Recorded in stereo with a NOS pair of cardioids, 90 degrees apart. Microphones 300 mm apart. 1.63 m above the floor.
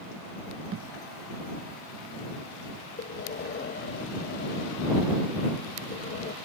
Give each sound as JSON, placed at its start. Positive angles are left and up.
{"t": 0.7, "sound": "a thud", "azimuth_deg": -45}
{"t": 3.0, "sound": "breathing", "azimuth_deg": 40}